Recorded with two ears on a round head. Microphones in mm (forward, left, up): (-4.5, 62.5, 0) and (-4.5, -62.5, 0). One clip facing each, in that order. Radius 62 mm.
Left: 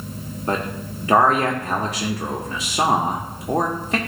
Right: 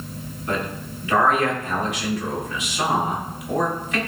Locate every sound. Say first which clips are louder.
0.5 s a man speaking: left 2 dB; 30° left (ahead or behind), 1.1 m